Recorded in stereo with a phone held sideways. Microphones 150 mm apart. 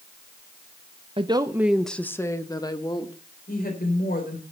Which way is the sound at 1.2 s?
35° right (ahead or behind).